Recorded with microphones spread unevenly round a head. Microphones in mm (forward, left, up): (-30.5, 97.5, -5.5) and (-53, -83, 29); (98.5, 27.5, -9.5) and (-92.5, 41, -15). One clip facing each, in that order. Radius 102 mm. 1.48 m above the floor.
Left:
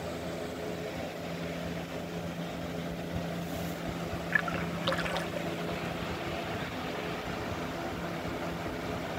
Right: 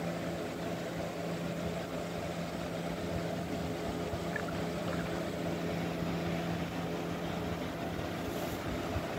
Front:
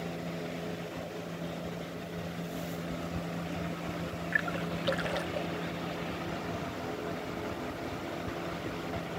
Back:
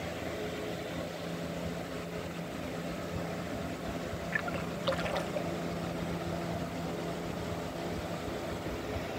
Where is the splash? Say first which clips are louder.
Left 1 dB, front 1 dB; 75° left.